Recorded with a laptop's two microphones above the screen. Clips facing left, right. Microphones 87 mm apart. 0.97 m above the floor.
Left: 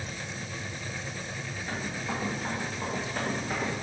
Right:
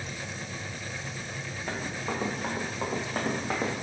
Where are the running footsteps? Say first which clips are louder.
Right 1 dB; 70° right (ahead or behind), 3 m; by 3.8 s 60° right (ahead or behind), 1.8 m.